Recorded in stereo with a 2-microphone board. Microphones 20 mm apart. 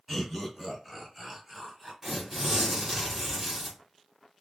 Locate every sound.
0.1 s laughter: centre (ahead or behind), 1.3 m; by 1.9 s 25° right (ahead or behind), 1.3 m
2.0 s tearing paper: 20° right (ahead or behind), 1.8 m